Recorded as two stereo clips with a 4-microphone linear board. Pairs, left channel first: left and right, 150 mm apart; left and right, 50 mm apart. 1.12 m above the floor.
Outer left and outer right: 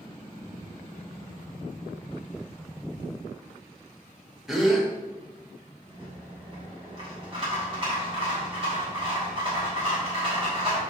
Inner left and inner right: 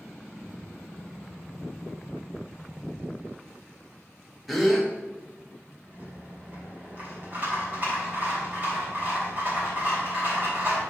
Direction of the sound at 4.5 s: Centre (ahead or behind).